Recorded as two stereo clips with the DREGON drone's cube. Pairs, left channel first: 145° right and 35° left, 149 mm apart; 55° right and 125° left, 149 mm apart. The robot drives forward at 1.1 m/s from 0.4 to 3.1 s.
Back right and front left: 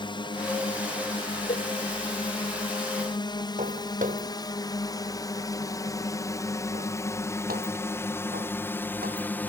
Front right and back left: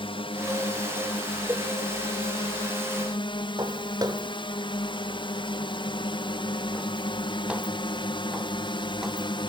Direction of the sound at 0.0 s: 100° right.